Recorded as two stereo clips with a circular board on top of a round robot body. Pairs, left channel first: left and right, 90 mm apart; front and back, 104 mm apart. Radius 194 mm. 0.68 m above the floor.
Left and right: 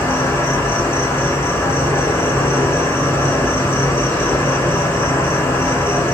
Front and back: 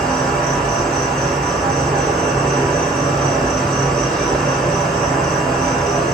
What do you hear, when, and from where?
0.0 s an insect: 80° left, 1.9 m